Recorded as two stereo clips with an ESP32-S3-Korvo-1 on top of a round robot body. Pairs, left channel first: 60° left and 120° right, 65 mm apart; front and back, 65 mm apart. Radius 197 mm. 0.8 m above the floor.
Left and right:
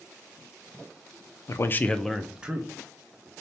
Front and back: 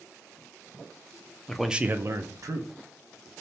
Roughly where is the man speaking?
Left.